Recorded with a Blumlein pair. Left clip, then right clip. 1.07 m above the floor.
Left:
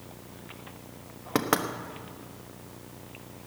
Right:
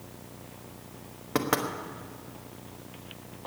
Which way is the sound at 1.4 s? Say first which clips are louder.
Left 1 dB; 10° left.